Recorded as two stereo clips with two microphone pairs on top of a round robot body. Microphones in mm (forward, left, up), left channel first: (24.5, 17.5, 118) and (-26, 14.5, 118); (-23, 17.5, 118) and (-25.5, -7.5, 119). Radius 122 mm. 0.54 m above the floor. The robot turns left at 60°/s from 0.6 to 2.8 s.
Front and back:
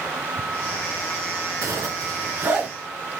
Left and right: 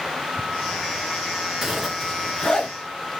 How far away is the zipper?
About 2 m.